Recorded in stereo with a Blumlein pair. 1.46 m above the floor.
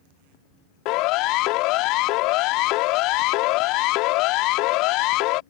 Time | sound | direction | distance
0.8 | a siren | 40° left | ?